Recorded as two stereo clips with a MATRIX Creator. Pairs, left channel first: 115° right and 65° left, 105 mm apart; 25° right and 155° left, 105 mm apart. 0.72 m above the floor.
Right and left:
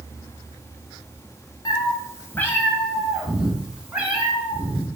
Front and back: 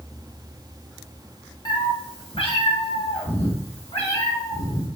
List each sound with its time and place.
1.6 s a cat meowing: 65° right, 1.7 m; by 4.9 s 5° right, 4 m